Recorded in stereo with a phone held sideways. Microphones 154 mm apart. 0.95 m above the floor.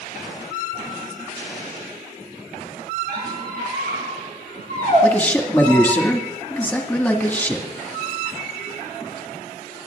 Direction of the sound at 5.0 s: 10° left (ahead or behind).